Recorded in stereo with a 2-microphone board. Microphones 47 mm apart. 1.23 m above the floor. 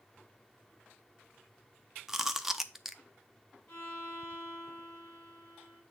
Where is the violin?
45° left (ahead or behind), 6.5 m.